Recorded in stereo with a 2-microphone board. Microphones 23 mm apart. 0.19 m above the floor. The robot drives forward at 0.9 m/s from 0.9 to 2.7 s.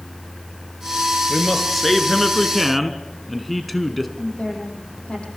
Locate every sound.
1.3 s a man speaking: centre (ahead or behind), 3 m
4.2 s a woman speaking: 70° left (ahead or behind), 8 m